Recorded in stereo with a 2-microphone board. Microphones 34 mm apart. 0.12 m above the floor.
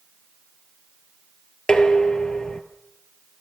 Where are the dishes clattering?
25° left (ahead or behind), 1.4 m.